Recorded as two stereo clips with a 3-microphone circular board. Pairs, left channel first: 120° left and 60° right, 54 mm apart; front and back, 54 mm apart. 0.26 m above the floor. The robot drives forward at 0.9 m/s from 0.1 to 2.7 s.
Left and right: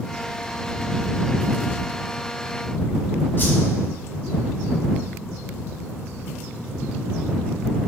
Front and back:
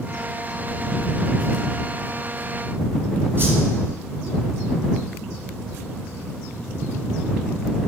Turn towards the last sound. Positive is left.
turn(degrees=150)